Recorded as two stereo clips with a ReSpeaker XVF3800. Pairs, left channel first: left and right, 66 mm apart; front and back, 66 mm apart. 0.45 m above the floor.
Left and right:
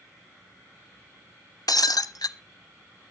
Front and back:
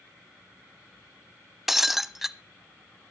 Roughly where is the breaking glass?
Left.